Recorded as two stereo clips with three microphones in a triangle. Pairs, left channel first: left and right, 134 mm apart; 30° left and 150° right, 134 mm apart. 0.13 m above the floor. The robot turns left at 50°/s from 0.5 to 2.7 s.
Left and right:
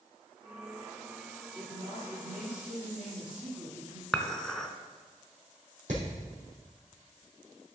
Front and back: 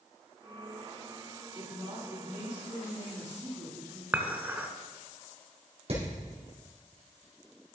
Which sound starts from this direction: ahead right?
A woman speaking, at 1.6 s.